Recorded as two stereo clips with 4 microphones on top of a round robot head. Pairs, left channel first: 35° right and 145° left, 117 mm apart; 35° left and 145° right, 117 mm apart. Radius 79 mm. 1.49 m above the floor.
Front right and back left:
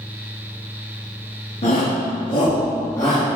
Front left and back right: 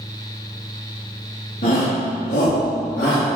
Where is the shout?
5° left, 1.8 m; by 3.2 s 35° left, 2.5 m.